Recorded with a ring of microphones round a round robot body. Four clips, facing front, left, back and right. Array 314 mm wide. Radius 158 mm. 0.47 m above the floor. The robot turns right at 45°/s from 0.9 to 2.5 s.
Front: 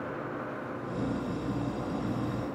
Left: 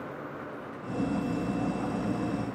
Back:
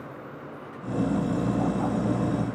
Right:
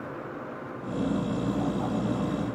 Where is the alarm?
No alarm in this recording.